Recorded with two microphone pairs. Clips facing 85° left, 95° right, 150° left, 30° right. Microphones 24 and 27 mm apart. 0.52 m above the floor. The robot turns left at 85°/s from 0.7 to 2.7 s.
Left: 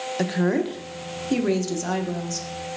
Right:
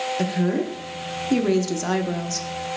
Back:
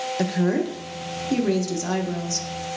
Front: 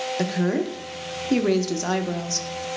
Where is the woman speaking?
45° left, 0.7 m; by 2.5 s 105° right, 0.7 m.